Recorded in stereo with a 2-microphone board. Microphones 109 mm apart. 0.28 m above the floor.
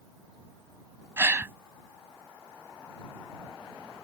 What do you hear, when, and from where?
1.2 s a gasp: 25° right (ahead or behind)